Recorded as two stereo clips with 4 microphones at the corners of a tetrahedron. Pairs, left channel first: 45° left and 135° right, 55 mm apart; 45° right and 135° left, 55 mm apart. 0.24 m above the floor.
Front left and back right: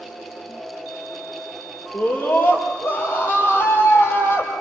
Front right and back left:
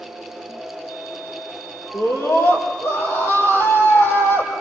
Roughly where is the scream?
Ahead.